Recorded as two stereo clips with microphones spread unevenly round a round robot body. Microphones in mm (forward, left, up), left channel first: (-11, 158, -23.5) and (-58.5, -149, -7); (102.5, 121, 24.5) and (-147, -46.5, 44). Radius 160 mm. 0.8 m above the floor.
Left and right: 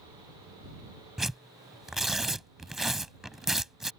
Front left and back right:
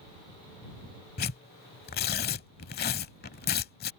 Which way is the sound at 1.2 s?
15° right.